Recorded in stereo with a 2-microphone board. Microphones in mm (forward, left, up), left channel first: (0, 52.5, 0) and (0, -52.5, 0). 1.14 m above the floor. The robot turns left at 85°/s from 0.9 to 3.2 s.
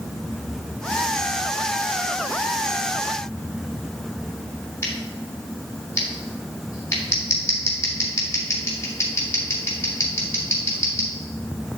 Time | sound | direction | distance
4.8 | scissors | 30° left (ahead or behind) | 2.5 m